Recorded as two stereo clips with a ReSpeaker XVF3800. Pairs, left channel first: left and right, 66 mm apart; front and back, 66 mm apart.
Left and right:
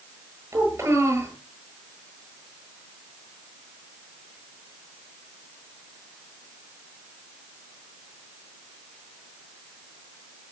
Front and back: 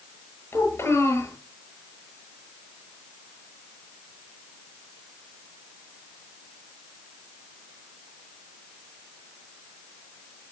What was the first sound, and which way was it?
A child speaking, 40° right.